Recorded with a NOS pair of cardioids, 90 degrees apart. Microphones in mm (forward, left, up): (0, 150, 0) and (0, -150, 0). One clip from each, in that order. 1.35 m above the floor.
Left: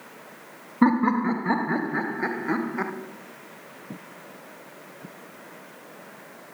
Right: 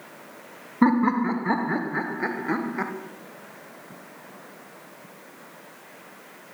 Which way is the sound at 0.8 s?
Straight ahead.